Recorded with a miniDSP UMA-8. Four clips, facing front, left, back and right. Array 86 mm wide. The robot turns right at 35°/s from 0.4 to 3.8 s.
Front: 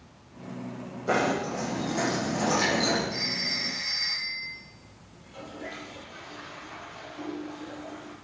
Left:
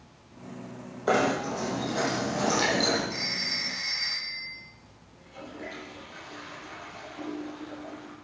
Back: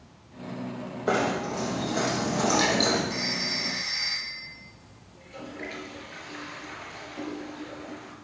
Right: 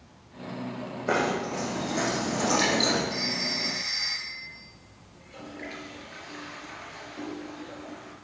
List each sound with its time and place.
1.1 s knocking: 130° left, 7.5 m; by 3.0 s 160° right, 7.5 m
3.1 s a phone ringing: 165° right, 8 m; by 4.5 s 140° right, 8 m
5.1 s a toilet flushing: 155° right, 5 m